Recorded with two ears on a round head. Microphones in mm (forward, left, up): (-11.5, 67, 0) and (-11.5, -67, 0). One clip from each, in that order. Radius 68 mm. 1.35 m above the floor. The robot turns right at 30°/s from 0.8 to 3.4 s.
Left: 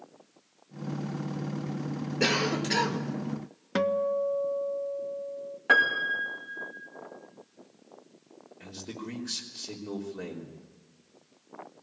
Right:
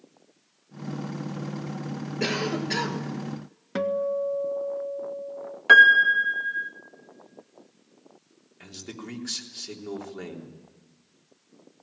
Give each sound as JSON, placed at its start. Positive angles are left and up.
{"t": 2.2, "sound": "a cough", "side_deg": 20, "distance_m": 1.4}
{"t": 3.8, "sound": "a guitar", "side_deg": 20, "distance_m": 0.6}
{"t": 5.7, "sound": "a piano", "side_deg": -55, "distance_m": 2.0}
{"t": 8.6, "sound": "a man speaking", "side_deg": -45, "distance_m": 3.5}